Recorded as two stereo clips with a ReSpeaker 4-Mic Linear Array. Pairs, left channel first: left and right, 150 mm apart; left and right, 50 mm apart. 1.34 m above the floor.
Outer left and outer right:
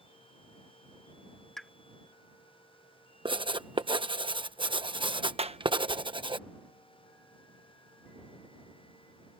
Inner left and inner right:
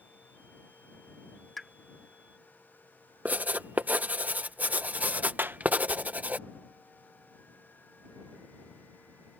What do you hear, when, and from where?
1.6 s a pop: 5° left (ahead or behind)
3.2 s writing: 35° right (ahead or behind)
5.4 s a clap: 40° right (ahead or behind)